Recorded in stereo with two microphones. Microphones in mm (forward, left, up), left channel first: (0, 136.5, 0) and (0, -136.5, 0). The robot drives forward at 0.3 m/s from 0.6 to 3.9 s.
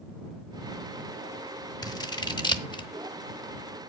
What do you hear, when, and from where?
1.8 s scissors: 15° left (ahead or behind), 0.8 m